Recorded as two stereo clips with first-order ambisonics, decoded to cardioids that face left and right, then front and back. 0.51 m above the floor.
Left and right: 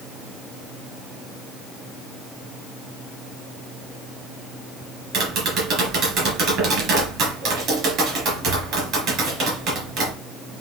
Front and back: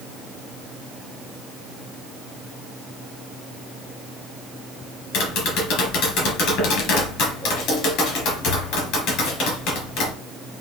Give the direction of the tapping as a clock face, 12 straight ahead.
2 o'clock.